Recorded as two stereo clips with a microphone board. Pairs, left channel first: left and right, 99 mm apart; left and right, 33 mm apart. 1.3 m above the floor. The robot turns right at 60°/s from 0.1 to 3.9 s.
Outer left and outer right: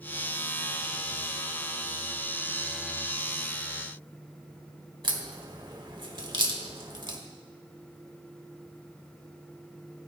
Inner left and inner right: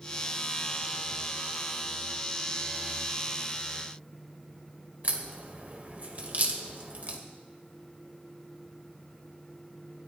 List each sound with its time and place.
5.0 s a crack: 50° right (ahead or behind), 1.5 m